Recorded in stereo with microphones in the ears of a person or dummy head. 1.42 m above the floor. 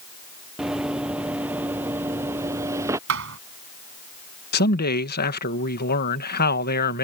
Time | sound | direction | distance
0.6 | running footsteps | 5° right (ahead or behind) | ?
3.1 | a thud | 65° right (ahead or behind) | ?
4.5 | a man speaking | 50° left (ahead or behind) | ?